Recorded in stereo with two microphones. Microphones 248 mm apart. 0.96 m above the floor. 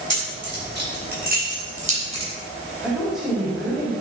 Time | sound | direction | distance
0.1 | keys jangling | 50° right (ahead or behind) | 4 m
2.8 | a woman speaking | centre (ahead or behind) | 4 m